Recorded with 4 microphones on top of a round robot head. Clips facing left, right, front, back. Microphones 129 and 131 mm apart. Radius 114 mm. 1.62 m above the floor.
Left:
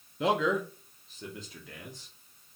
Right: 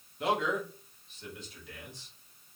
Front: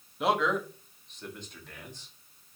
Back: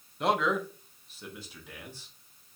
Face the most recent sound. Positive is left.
turn(degrees=100)